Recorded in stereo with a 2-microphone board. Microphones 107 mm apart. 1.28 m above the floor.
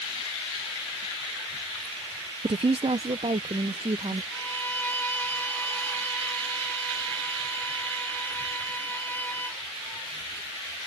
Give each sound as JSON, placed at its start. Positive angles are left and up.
{"t": 2.4, "sound": "a woman speaking", "side_deg": -50}
{"t": 4.3, "sound": "a violin", "side_deg": 15}